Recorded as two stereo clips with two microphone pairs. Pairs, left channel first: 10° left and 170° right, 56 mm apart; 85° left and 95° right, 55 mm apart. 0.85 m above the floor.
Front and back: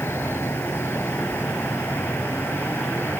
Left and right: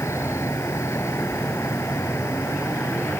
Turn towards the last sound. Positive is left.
turn(degrees=55)